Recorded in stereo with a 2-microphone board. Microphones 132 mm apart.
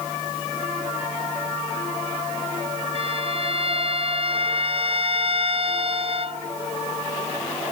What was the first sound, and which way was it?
A violin, 50° right (ahead or behind).